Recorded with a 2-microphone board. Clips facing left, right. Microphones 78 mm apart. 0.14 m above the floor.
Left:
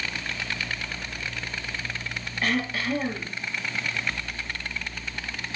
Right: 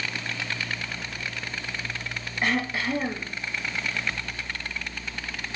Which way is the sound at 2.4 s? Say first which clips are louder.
Right 1 dB; 20° right (ahead or behind).